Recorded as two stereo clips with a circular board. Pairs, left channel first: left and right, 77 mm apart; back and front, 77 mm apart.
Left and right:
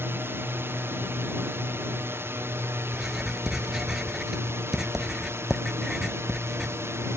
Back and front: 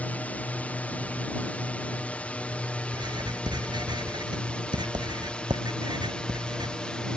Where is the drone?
125° right; by 7.2 s 110° right.